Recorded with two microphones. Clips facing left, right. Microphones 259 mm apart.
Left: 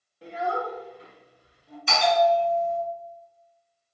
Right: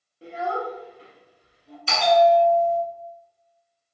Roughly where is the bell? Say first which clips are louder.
Right 4 dB; right.